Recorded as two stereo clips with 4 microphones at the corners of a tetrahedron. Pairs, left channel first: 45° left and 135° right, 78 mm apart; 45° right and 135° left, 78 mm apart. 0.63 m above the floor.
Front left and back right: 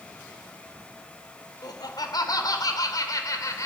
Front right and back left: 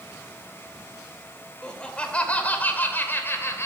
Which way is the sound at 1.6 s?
35° left.